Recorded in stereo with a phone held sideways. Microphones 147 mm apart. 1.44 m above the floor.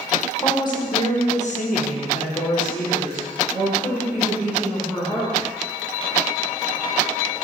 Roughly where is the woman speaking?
Left.